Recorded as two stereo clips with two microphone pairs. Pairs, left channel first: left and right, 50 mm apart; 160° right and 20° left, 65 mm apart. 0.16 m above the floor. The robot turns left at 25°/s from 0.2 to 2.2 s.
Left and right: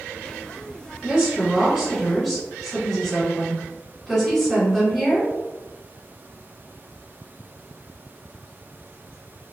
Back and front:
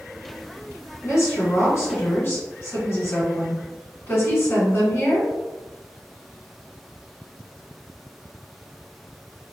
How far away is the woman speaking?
About 1.8 m.